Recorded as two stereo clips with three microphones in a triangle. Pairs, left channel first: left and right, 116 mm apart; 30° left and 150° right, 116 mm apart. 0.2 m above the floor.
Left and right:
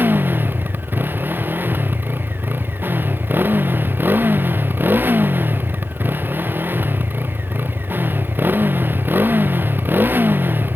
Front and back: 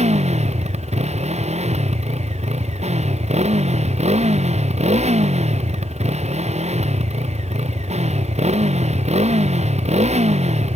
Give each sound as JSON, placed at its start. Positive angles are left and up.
{"t": 0.0, "sound": "a motorcycle", "azimuth_deg": -160}